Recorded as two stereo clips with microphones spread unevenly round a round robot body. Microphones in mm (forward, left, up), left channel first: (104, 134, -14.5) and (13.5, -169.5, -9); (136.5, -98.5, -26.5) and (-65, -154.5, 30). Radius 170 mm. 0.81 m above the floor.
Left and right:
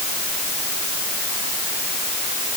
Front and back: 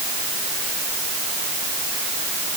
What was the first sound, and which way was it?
Only background noise.